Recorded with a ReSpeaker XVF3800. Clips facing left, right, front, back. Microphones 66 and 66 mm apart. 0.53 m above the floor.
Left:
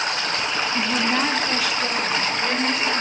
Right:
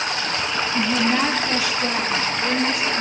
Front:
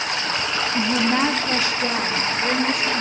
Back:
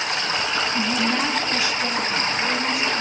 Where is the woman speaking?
Straight ahead, 0.8 m; by 3.0 s 5° right, 1.7 m.